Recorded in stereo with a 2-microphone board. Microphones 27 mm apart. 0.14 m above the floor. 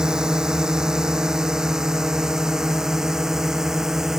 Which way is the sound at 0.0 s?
25° right (ahead or behind).